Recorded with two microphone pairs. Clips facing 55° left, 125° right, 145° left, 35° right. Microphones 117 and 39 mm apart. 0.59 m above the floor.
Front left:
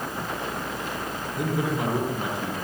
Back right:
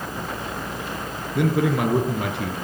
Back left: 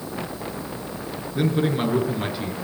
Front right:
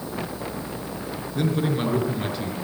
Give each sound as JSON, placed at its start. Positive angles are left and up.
{"t": 1.4, "sound": "a man speaking", "azimuth_deg": -140, "distance_m": 7.5}